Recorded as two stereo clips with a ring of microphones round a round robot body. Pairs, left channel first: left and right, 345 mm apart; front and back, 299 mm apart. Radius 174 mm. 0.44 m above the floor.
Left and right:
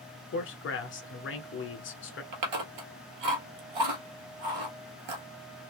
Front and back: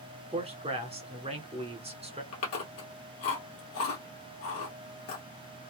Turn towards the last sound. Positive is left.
turn(degrees=-55)